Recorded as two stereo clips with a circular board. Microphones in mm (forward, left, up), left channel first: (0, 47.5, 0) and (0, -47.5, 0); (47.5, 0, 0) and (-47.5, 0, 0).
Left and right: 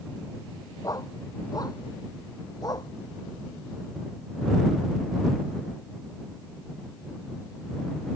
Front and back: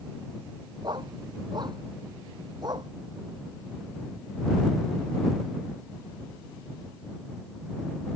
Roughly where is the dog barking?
Behind left.